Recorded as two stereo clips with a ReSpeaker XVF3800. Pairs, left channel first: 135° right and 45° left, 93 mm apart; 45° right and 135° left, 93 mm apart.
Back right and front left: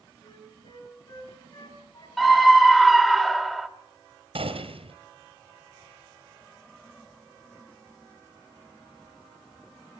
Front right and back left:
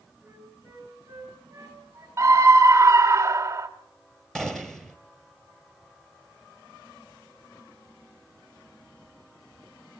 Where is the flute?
160° right, 6 m.